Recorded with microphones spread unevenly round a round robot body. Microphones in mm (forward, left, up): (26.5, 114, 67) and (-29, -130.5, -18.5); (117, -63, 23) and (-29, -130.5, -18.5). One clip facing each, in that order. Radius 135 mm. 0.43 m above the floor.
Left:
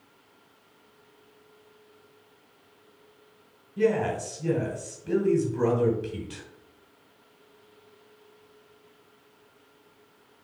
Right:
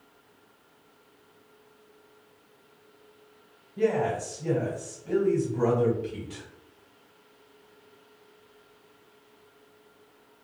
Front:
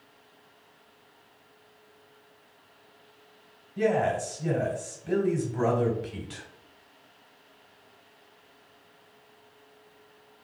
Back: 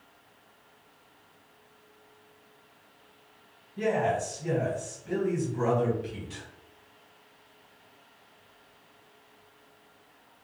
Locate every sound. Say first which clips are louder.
3.8 s a man speaking: left 1 dB, front 2 dB; 15° left, 2.5 m